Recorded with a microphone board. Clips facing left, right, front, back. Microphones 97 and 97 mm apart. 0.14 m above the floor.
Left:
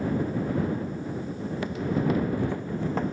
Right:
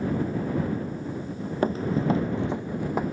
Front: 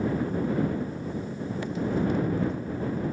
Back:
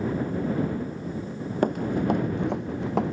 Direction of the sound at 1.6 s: 140° right.